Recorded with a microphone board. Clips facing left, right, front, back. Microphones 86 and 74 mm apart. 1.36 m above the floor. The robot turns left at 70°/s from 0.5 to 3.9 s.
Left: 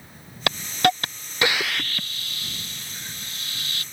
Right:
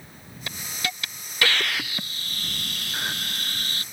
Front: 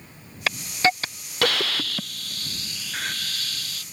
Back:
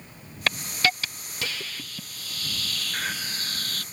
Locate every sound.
0.5 s a hiss: 85° left; by 3.8 s 150° right